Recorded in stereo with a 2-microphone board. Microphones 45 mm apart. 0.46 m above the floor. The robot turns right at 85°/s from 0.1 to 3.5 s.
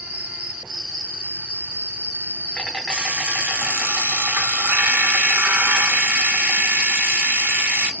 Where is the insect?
60° right, 1.7 m; by 8.0 s 130° right, 1.7 m.